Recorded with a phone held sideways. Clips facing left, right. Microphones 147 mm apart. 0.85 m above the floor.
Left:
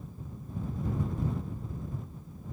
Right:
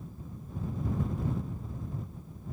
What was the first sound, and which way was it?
Only background noise.